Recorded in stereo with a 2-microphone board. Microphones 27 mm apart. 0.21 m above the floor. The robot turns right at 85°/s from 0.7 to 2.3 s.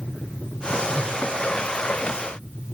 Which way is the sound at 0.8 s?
30° right.